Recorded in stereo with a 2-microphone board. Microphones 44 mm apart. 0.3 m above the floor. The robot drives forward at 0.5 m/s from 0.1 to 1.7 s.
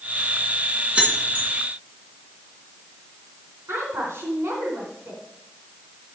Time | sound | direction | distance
0.9 | keys jangling | 25° right (ahead or behind) | 2.5 m
3.7 | a woman speaking | 70° right (ahead or behind) | 3 m